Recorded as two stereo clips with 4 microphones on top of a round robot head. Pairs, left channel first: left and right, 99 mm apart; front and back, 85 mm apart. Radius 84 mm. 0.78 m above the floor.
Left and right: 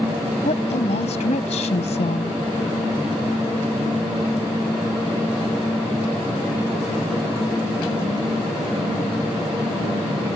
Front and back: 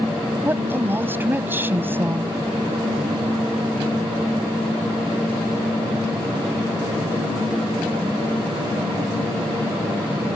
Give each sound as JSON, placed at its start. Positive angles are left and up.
{"t": 0.5, "sound": "a woman speaking", "azimuth_deg": 115}